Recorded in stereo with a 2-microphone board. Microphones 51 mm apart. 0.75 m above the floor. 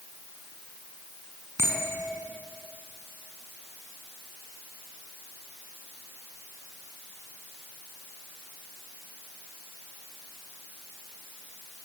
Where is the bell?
60° right (ahead or behind), 7 m.